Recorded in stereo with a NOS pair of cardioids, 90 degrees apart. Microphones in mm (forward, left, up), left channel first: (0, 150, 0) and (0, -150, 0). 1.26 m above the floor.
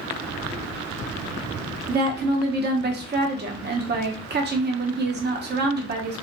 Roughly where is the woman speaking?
Ahead right.